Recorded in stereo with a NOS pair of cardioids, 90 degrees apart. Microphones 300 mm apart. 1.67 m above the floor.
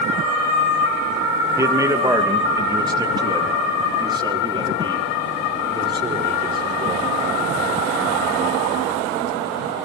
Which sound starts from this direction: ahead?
A man speaking, at 1.6 s.